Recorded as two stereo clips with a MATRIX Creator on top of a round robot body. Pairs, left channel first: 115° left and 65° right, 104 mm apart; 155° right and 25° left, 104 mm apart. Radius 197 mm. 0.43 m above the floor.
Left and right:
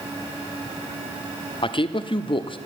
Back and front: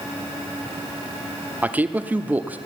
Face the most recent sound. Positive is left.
turn(degrees=95)